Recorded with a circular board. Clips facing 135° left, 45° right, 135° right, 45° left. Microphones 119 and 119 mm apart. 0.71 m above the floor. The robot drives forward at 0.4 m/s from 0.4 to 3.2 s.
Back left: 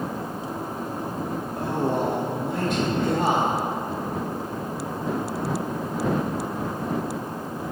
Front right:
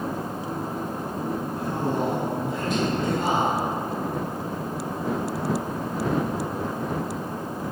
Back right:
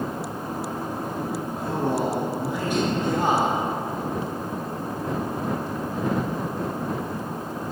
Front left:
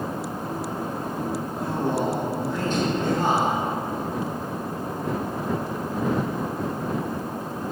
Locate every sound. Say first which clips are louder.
1.6 s a man speaking: back left 4 dB, back right 1 dB; 135° left, 1.0 m; by 3.7 s 150° left, 1.5 m